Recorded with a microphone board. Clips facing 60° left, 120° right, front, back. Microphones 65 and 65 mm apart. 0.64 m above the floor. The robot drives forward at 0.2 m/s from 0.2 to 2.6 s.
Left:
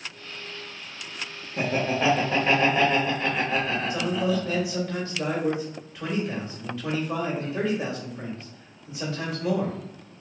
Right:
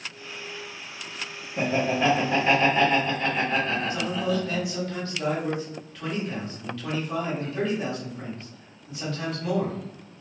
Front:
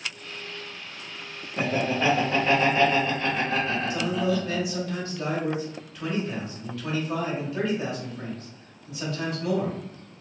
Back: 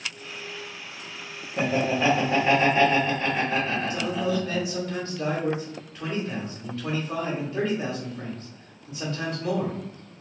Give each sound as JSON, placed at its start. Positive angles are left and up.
{"t": 1.6, "sound": "laughter", "azimuth_deg": 105, "distance_m": 0.9}
{"t": 3.9, "sound": "a man speaking", "azimuth_deg": 130, "distance_m": 1.3}